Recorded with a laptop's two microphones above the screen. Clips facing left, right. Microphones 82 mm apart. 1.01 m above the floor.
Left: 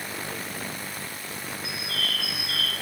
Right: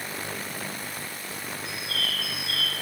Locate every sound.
1.6 s a bird: 10° left (ahead or behind), 5.5 m